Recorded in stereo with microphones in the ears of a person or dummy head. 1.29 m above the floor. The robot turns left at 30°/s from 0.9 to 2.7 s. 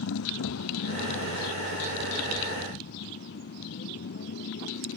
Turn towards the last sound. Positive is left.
turn(degrees=60)  # may be behind; listen again after turning